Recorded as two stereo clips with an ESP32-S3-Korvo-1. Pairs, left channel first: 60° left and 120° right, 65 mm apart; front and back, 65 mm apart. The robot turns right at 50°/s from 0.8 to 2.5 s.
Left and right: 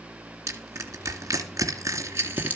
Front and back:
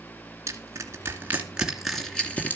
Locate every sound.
0.5 s crushing: 145° right, 2.5 m; by 2.6 s 60° right, 2.5 m